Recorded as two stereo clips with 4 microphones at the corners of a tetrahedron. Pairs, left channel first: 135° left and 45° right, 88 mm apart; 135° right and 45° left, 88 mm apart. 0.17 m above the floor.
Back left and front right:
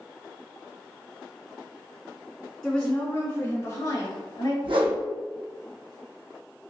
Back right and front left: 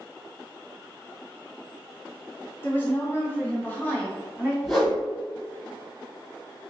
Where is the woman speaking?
150° right, 1.1 m; by 4.5 s 155° left, 1.6 m.